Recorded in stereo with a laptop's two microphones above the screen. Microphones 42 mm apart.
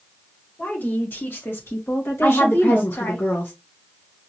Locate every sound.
0.6 s a woman speaking: 50° left (ahead or behind), 1.8 m; by 3.2 s 70° left (ahead or behind), 1.5 m
2.2 s a woman speaking: 60° left (ahead or behind), 1.0 m